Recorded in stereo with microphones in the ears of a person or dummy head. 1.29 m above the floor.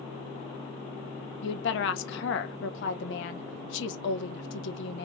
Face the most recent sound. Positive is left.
turn(degrees=70)  # may be behind; listen again after turning